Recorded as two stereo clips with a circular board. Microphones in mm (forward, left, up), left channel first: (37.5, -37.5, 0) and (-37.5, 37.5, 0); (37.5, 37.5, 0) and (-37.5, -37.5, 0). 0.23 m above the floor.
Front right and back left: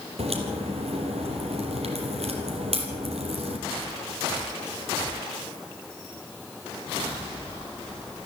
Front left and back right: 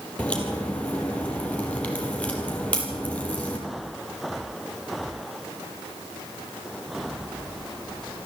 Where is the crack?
125° left, 4 m.